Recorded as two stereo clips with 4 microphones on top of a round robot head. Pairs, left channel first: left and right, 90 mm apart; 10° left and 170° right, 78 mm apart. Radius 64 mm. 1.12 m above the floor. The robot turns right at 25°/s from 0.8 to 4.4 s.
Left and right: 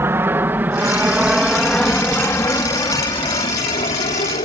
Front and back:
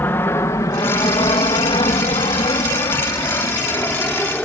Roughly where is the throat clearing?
No throat clearing in this recording.